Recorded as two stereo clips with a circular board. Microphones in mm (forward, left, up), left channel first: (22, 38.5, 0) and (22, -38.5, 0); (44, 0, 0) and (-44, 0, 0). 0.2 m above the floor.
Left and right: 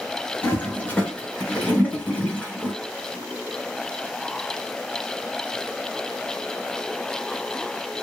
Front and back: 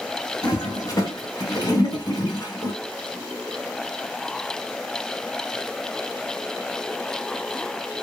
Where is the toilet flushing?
25° left, 1.6 m.